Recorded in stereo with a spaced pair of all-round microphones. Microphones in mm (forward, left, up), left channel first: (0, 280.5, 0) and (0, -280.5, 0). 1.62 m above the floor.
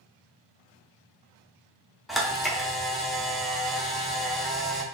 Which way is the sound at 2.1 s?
Centre (ahead or behind).